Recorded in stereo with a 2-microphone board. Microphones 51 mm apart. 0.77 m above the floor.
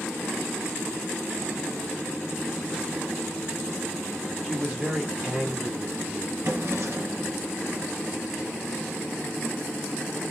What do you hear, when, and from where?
4.4 s a man speaking: 15° right (ahead or behind), 1.7 m
6.4 s a drawer: 60° right (ahead or behind), 2 m